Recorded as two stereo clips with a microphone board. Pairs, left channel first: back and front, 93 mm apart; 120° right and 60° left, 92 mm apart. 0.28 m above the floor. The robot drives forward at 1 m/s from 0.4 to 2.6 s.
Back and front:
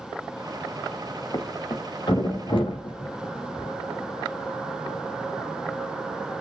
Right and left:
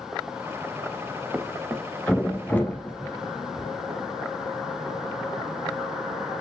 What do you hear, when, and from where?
1.3 s a thud: 135° left, 0.5 m; by 3.7 s 165° left, 1.7 m